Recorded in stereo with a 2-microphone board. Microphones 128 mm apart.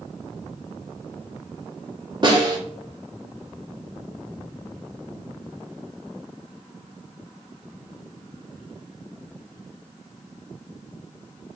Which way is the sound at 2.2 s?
35° right (ahead or behind).